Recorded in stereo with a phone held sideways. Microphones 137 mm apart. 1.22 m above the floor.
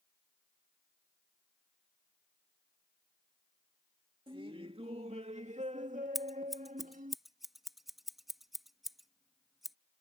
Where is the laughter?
40° right (ahead or behind); by 7.2 s 80° right.